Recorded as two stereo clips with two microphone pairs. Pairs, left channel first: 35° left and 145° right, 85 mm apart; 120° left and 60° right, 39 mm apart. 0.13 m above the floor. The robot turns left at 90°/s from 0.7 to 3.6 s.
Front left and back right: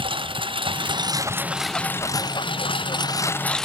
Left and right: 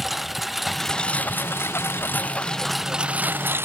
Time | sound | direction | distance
0.0 | a lawn mower | 145° right | ?